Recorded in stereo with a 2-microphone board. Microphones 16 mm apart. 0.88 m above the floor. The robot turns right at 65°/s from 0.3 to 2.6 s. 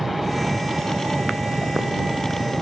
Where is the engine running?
160° right; by 2.6 s 10° right.